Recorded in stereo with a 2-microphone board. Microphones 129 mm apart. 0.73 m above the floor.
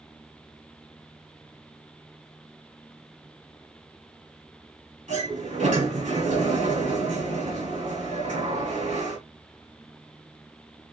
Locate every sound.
5.1 s a sliding door: 85° right, 4 m